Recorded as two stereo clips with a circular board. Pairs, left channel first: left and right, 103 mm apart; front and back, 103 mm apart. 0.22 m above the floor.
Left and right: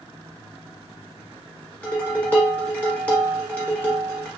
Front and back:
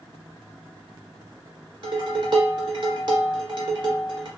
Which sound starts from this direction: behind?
Dishes clattering, at 1.8 s.